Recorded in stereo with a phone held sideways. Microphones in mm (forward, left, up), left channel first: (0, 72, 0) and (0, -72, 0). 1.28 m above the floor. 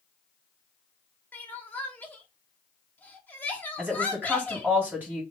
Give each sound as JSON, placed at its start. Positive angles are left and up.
{"t": 1.3, "sound": "crying", "side_deg": 10, "distance_m": 0.8}
{"t": 3.8, "sound": "a woman speaking", "side_deg": -15, "distance_m": 2.0}